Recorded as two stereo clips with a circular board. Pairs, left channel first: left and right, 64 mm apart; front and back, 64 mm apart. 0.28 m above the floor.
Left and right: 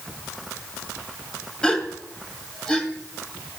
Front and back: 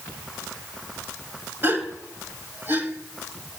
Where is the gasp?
160° left, 1.8 m.